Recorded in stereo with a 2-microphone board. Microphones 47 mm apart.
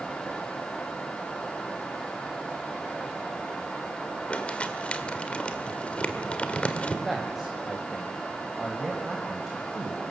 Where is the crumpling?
25° left (ahead or behind), 1.7 m.